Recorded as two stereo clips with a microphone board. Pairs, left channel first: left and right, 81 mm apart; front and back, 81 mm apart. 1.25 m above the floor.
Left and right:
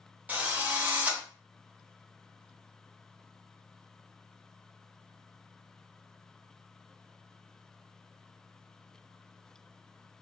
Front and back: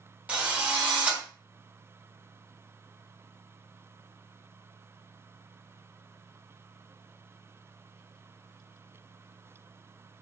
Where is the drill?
125° right, 0.7 m.